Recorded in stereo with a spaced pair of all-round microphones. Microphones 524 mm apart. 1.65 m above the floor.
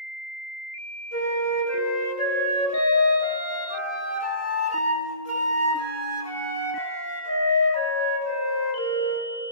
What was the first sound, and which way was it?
A flute, 30° left (ahead or behind).